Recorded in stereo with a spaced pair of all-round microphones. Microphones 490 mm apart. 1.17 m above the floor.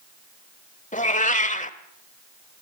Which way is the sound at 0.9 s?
15° left (ahead or behind).